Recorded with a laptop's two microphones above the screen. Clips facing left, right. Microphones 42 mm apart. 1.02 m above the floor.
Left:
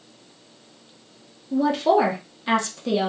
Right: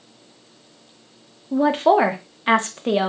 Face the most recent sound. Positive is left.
turn(degrees=-40)  # may be behind; listen again after turning